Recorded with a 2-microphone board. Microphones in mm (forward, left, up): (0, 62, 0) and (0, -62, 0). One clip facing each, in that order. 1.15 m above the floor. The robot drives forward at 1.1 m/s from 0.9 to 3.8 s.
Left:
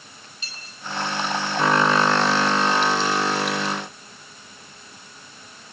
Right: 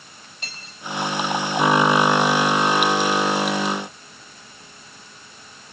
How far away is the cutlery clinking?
About 4.5 m.